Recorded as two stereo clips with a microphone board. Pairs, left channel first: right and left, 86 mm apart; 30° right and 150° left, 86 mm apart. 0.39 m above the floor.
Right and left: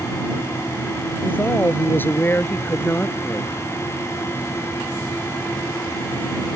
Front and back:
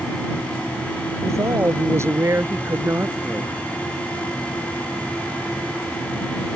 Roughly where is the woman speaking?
Behind right.